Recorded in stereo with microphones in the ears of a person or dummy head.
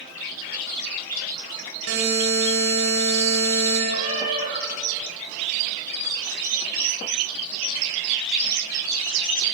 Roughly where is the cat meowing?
Right.